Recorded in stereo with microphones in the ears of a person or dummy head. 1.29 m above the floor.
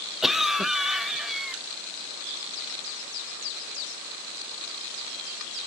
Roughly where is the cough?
Centre.